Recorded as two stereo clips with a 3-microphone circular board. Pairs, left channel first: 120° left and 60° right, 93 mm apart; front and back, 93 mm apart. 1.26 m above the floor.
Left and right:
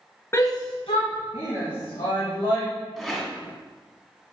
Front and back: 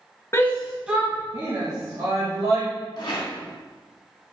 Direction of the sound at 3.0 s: 35° left.